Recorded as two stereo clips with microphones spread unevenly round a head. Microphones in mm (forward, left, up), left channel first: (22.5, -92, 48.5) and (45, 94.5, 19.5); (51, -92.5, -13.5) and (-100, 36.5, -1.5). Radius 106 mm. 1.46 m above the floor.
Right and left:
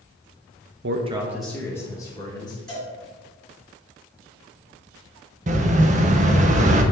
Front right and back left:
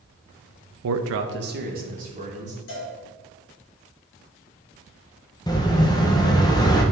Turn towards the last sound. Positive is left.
turn(degrees=30)